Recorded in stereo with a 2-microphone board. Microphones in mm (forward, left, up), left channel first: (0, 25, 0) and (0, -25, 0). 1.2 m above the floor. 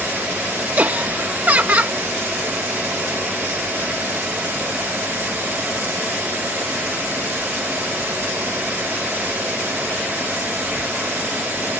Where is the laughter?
35° right (ahead or behind).